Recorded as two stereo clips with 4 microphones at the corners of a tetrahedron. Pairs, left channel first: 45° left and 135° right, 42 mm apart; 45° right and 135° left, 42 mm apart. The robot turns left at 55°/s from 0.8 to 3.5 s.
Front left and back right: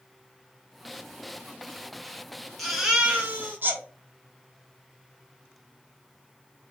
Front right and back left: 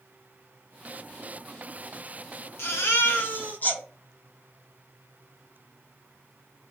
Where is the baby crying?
40° right, 0.8 m; by 3.8 s 90° right, 0.8 m.